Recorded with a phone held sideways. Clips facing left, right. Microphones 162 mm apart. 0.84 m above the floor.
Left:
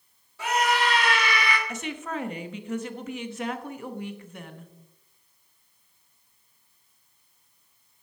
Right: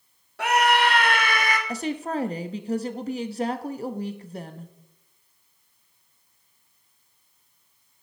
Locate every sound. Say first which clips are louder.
0.4 s a scream: right 4 dB; 70° right (ahead or behind), 1.7 m; by 1.6 s 45° right (ahead or behind), 1.6 m
1.7 s a woman speaking: right 5 dB; 35° right (ahead or behind), 0.8 m